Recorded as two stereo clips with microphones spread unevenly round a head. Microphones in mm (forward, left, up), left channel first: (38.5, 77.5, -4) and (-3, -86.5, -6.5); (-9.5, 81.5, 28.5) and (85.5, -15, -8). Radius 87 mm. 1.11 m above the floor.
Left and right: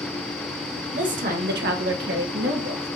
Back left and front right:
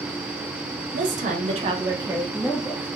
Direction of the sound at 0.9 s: 60° right.